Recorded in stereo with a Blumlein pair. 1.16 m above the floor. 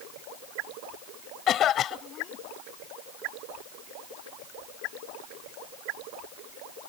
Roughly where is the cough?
Ahead left.